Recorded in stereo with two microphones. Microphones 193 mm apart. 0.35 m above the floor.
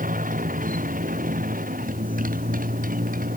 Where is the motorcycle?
45° right (ahead or behind).